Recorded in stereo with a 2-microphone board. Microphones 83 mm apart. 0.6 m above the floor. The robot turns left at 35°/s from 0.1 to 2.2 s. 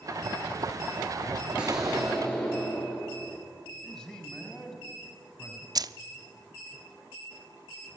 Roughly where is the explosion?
Centre.